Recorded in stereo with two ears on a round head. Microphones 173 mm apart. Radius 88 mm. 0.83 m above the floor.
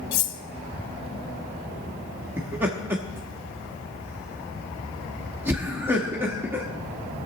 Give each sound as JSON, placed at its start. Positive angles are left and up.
{"t": 0.1, "sound": "cutlery clinking", "side_deg": 70, "distance_m": 0.9}
{"t": 2.4, "sound": "laughter", "side_deg": -10, "distance_m": 1.2}